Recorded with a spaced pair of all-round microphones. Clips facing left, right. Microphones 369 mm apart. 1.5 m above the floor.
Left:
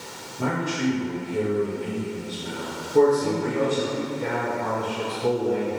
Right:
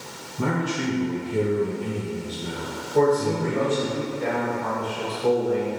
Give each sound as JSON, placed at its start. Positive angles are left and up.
{"t": 0.4, "sound": "a man speaking", "side_deg": -45, "distance_m": 1.3}
{"t": 2.9, "sound": "a man speaking", "side_deg": 45, "distance_m": 1.9}